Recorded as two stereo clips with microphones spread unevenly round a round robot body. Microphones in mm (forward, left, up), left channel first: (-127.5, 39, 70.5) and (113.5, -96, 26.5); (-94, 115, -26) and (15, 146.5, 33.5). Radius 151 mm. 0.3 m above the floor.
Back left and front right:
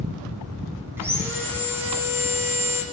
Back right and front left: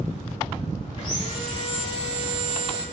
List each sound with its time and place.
1.0 s sawing: 110° right, 9 m